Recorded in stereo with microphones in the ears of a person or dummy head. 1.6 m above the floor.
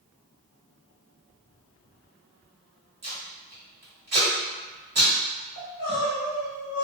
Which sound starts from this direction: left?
Crying, at 5.6 s.